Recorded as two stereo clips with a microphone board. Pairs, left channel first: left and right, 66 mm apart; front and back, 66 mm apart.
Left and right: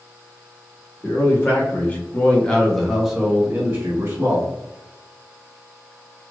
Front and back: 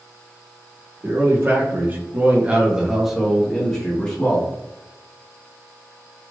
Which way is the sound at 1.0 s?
135° left.